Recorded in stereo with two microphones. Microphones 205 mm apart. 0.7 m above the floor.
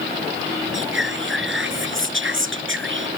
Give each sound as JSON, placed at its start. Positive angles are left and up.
{"t": 0.7, "sound": "whispering", "side_deg": -70}